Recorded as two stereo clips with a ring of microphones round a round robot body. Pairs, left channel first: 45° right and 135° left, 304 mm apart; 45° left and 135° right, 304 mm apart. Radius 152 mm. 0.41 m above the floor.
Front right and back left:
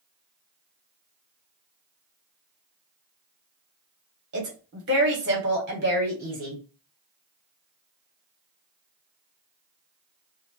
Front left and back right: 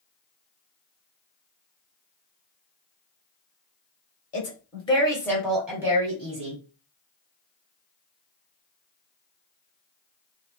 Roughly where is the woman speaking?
Left.